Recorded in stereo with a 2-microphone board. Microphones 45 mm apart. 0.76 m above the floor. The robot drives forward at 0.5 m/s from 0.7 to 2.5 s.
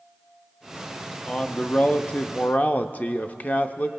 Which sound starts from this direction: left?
A man speaking, at 1.3 s.